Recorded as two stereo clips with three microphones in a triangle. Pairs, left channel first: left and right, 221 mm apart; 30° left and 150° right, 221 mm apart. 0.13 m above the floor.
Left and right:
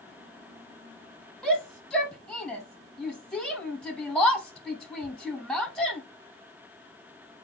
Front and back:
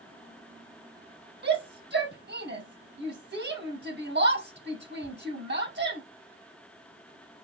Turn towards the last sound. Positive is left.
turn(degrees=175)